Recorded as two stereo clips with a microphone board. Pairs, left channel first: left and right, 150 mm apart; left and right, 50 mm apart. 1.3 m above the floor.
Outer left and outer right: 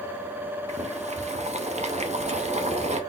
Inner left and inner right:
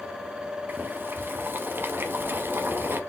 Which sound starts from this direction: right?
Boiling, at 0.7 s.